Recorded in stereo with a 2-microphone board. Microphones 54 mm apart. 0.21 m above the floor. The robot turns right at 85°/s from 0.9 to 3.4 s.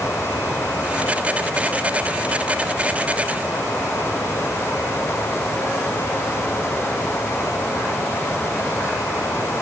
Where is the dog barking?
I don't hear a dog barking.